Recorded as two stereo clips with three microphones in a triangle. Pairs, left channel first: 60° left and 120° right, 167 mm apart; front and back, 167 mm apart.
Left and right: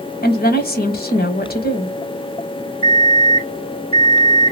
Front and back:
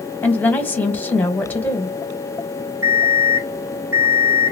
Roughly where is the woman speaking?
Left.